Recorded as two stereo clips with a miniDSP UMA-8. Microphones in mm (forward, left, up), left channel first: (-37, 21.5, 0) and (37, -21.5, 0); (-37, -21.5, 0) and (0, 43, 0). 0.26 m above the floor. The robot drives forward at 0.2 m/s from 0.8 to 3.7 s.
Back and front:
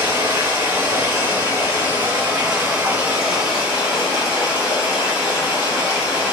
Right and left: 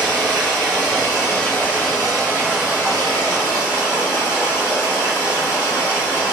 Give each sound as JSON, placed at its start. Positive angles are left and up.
{"t": 0.0, "sound": "running water", "azimuth_deg": -65, "distance_m": 1.6}